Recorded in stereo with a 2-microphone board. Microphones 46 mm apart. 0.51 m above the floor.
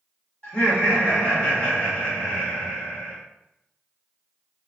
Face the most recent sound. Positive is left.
turn(degrees=30)  # may be behind; listen again after turning